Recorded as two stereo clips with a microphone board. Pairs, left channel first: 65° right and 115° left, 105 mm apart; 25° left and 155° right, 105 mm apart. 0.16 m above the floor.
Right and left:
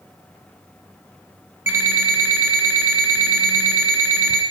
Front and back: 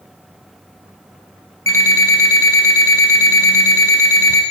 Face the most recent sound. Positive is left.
turn(degrees=60)